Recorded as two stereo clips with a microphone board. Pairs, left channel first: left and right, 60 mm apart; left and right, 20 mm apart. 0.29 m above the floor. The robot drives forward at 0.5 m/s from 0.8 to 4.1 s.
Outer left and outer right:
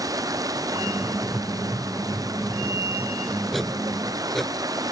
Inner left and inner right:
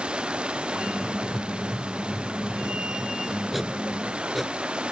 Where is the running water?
75° right (ahead or behind); by 4.9 s 80° right.